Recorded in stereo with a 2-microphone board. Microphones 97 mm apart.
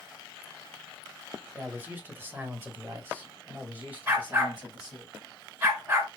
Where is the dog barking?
25° right (ahead or behind), 1.6 m.